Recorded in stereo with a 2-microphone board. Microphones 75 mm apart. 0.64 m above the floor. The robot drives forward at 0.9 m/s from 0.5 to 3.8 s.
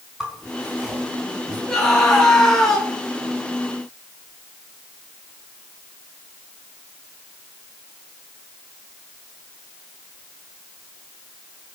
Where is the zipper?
10° right (ahead or behind), 5 m.